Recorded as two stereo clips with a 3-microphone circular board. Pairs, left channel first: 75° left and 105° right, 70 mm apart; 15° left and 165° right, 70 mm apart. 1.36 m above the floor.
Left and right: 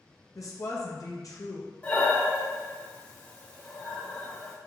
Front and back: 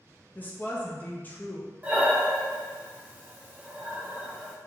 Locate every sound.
0.3 s a woman speaking: 75° left, 0.6 m
1.8 s breathing: 135° left, 0.6 m